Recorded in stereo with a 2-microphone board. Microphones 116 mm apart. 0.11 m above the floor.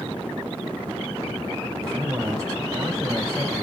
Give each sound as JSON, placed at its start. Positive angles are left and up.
{"t": 1.8, "sound": "a man speaking", "side_deg": -35, "distance_m": 4.0}